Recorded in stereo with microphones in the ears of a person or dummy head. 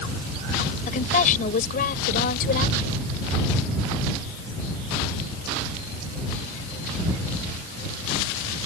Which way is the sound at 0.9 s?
45° left (ahead or behind).